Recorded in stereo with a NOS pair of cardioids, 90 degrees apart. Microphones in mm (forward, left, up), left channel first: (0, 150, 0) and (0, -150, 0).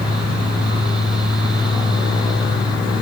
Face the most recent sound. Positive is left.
turn(degrees=15)